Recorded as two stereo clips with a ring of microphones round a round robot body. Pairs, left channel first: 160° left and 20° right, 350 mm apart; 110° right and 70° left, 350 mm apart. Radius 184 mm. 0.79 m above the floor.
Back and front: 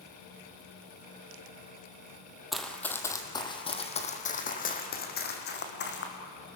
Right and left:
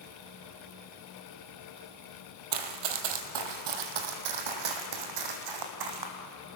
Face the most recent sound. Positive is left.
turn(degrees=100)